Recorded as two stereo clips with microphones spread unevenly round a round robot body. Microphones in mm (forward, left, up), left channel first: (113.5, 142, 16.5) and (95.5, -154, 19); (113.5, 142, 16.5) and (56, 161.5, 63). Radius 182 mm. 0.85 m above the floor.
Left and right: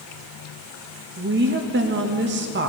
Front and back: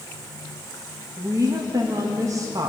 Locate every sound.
1.2 s a woman speaking: 125° right, 0.8 m